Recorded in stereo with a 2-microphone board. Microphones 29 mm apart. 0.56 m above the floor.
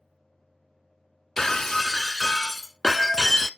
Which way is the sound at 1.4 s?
15° left (ahead or behind).